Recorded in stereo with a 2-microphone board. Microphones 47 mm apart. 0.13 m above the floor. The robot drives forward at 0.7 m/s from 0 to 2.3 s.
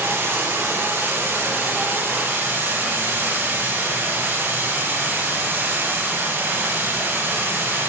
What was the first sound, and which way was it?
Running water, 65° right (ahead or behind).